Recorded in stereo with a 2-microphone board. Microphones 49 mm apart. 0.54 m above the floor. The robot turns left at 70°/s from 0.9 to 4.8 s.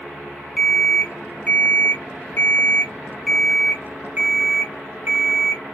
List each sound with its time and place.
0.6 s an alarm clock: 175° left, 0.5 m; by 5.6 s 95° right, 0.5 m